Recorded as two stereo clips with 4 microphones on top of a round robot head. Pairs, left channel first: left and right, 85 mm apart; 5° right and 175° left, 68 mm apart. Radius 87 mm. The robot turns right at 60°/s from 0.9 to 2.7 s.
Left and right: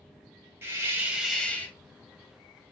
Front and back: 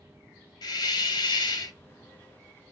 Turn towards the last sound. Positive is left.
turn(degrees=85)